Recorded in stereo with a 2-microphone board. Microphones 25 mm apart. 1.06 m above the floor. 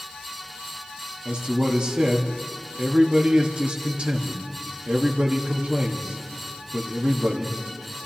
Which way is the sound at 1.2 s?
45° right (ahead or behind).